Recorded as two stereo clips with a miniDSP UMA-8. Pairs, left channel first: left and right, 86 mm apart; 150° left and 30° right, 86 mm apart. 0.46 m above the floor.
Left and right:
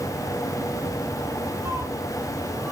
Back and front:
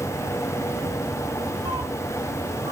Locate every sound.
1.6 s a cat meowing: 40° right, 1.4 m; by 2.7 s 15° right, 2.5 m